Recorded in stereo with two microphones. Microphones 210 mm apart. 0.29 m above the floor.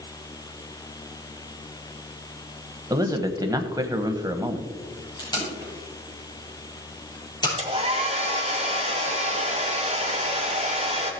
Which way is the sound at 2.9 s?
15° right (ahead or behind).